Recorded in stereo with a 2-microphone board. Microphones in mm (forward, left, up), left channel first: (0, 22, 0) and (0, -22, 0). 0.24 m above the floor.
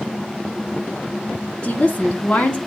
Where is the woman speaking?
25° left (ahead or behind), 2.5 m.